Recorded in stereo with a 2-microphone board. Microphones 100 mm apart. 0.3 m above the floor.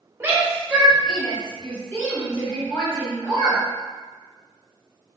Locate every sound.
0.2 s a shout: 25° right (ahead or behind), 1.3 m; by 3.6 s 45° left (ahead or behind), 1.9 m